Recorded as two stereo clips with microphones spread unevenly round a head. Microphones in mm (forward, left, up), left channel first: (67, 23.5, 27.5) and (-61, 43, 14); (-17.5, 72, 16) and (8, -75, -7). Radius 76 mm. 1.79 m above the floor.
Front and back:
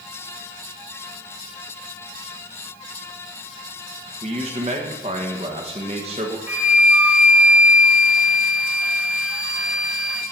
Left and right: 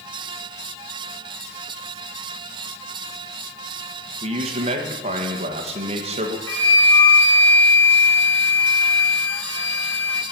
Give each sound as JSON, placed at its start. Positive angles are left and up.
{"t": 4.2, "sound": "a man speaking", "azimuth_deg": -135, "distance_m": 1.4}
{"t": 6.5, "sound": "a flute", "azimuth_deg": 90, "distance_m": 1.3}